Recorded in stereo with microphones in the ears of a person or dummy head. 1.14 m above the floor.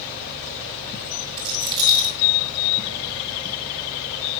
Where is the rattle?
25° right (ahead or behind), 8.5 m.